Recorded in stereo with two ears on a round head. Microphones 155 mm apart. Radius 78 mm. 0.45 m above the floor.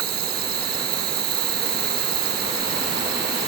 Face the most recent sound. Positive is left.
turn(degrees=-65)  # may be behind; listen again after turning